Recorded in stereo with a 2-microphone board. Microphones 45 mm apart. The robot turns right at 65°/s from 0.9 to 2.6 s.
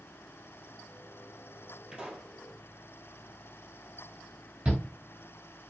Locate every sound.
1.9 s a pop: 25° right (ahead or behind), 2.0 m; by 2.3 s centre (ahead or behind), 2.0 m
4.7 s a shout: 25° right (ahead or behind), 1.7 m